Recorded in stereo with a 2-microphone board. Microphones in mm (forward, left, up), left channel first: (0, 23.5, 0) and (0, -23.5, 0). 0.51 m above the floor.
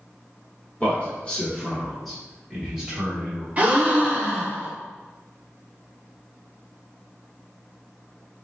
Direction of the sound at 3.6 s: 30° right (ahead or behind).